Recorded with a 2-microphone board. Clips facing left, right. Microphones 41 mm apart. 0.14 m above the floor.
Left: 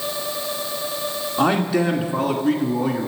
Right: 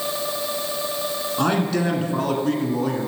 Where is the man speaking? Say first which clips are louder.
Left 3 dB; 10° left (ahead or behind), 1.2 m.